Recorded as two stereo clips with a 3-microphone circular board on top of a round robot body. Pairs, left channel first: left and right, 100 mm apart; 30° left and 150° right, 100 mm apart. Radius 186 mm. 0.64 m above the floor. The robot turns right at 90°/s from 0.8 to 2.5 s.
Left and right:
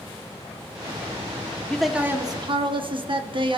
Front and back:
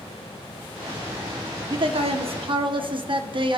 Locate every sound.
1.7 s a man speaking: 170° left, 1.8 m; by 3.6 s 120° right, 1.8 m